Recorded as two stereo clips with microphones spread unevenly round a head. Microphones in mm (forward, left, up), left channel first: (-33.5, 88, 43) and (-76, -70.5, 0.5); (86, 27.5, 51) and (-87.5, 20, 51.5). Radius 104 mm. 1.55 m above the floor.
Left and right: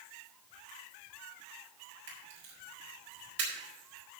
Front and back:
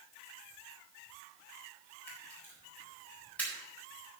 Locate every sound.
2.1 s a camera shutter: 80° right, 4.5 m